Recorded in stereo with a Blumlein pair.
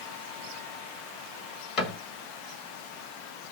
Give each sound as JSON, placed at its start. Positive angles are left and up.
{"t": 1.8, "sound": "a cupboard door", "azimuth_deg": 30, "distance_m": 1.7}